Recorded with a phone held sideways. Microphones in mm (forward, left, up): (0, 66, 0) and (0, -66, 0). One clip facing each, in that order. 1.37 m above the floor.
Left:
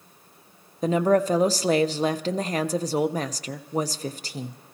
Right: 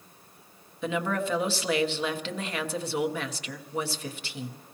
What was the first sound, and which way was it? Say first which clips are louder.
A woman speaking: left 9 dB; 40° left (ahead or behind).